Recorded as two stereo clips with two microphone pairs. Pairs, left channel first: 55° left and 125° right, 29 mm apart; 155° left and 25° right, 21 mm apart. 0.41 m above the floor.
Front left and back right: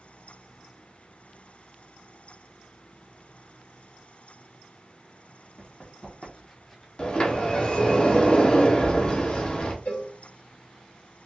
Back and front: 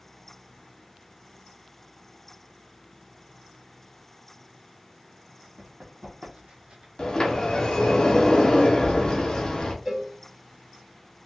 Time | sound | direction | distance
5.6 | running footsteps | 10° right | 1.6 m
7.0 | a sliding door | 105° left | 0.7 m
9.8 | a cowbell | 45° left | 1.5 m